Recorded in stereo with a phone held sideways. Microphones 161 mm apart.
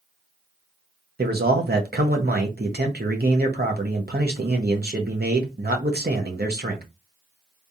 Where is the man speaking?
75° right (ahead or behind), 1.1 m.